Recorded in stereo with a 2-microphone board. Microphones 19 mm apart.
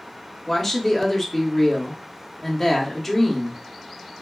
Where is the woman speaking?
10° left (ahead or behind), 0.7 m.